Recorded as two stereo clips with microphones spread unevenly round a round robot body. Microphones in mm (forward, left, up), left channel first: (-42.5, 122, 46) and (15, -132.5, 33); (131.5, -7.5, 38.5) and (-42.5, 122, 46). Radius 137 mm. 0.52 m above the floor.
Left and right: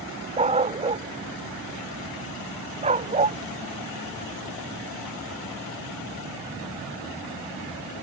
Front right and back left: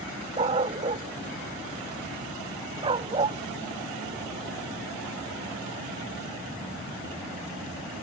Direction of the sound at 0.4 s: 145° right.